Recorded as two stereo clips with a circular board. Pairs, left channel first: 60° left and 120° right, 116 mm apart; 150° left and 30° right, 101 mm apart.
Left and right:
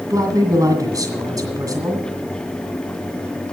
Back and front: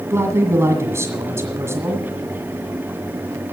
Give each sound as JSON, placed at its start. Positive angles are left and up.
{"t": 0.1, "sound": "a man speaking", "azimuth_deg": -80, "distance_m": 2.0}